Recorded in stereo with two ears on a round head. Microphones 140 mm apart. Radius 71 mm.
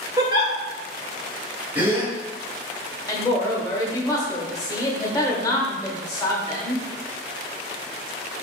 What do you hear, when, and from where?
0.2 s a giggle: 25° right (ahead or behind), 1.2 m
1.8 s a gasp: 10° right (ahead or behind), 1.3 m
3.1 s a woman speaking: 20° left (ahead or behind), 1.1 m